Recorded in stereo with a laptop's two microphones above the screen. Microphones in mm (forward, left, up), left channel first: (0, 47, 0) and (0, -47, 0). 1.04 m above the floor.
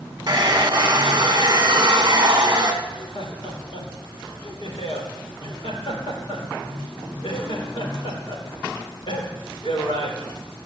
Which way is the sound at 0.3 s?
45° right (ahead or behind).